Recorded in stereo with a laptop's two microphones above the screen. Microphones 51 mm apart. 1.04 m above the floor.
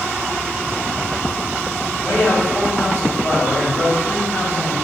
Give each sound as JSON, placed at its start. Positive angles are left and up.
{"t": 2.0, "sound": "a man speaking", "side_deg": 60, "distance_m": 2.5}